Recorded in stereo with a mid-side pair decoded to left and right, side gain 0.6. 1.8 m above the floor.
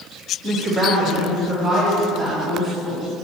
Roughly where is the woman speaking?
Ahead.